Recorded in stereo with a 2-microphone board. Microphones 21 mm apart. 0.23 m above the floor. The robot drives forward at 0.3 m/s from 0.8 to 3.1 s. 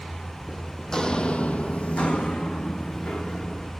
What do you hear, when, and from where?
0.9 s footsteps: 30° left (ahead or behind), 0.7 m; by 3.7 s 40° left (ahead or behind), 2 m